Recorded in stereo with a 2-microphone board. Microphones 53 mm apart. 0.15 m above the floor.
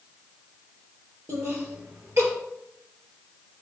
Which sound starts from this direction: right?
Laughter, at 1.3 s.